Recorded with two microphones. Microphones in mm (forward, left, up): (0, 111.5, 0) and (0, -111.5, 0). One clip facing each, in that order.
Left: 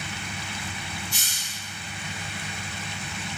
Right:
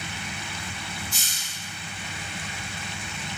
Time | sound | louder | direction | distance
1.1 | a hiss | left 1 dB | 70° left (ahead or behind) | 0.5 m